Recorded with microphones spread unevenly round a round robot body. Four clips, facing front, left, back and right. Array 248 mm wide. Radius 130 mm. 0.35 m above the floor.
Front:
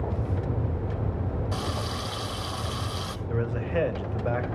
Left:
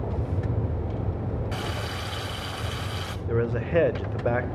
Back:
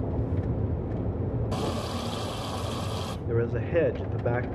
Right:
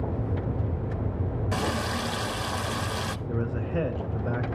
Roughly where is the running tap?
Behind right.